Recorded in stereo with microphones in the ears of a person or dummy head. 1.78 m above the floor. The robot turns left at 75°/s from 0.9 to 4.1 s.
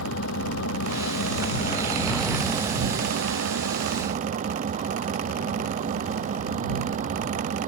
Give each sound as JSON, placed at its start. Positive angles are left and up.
{"t": 0.0, "sound": "an engine running", "azimuth_deg": 100}